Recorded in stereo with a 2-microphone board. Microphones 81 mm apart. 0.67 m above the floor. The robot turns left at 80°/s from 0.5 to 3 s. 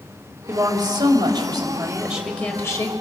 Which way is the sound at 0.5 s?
40° right.